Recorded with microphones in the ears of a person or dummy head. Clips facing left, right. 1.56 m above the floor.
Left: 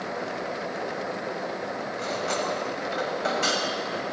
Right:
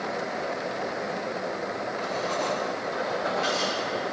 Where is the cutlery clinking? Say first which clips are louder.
Left 1 dB; 65° left (ahead or behind), 4.5 m.